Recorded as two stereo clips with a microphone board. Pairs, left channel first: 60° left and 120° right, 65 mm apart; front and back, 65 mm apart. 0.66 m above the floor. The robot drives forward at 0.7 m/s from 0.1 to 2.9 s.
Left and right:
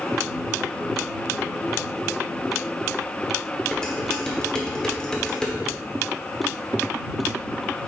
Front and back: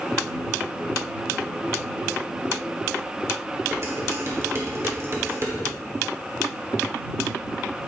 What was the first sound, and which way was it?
Dishes clattering, 135° left.